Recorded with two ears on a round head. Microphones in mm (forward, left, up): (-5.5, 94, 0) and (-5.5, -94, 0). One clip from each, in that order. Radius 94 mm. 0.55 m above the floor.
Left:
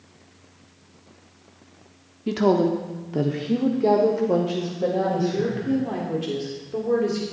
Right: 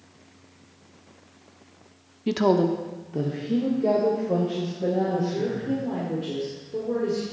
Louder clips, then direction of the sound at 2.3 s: Left 1 dB; 25° right (ahead or behind).